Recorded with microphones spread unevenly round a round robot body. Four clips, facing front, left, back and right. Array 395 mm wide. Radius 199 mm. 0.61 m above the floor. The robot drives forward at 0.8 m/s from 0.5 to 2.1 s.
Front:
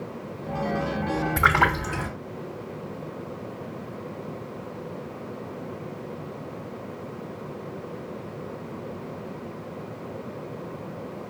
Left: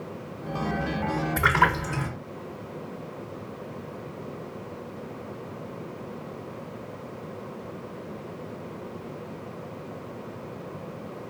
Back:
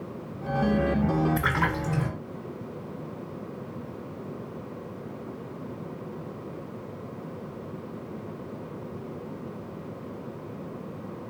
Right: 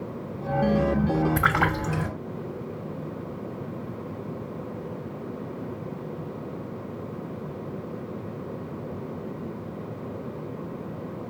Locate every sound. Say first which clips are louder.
1.4 s a splash: left 1 dB, front 6 dB; 30° right, 1.9 m; by 2.1 s 45° right, 1.6 m